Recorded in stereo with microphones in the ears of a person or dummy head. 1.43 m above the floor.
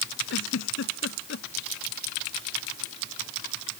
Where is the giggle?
65° left (ahead or behind).